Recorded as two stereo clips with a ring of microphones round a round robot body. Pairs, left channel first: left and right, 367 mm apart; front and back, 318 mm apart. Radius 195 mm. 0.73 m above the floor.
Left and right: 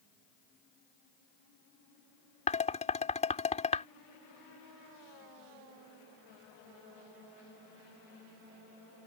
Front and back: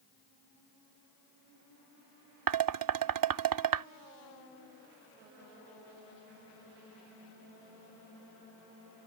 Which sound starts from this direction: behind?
Dishes clattering, at 2.5 s.